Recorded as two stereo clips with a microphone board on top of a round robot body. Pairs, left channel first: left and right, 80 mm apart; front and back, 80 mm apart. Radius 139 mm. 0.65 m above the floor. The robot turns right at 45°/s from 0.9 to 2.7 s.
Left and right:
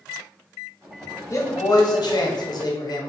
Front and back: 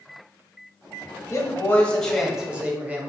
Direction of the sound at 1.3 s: 50° left.